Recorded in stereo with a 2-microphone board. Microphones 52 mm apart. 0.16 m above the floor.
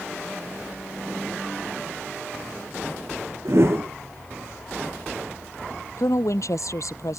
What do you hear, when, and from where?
3.5 s a whoosh: 55° right (ahead or behind)
6.0 s a woman speaking: 75° left (ahead or behind)